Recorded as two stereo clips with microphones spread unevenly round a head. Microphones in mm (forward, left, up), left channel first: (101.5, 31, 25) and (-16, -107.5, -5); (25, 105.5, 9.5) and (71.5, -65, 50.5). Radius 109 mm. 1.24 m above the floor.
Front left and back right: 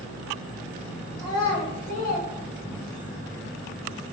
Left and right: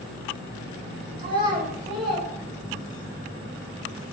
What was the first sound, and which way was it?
A child speaking, 20° right.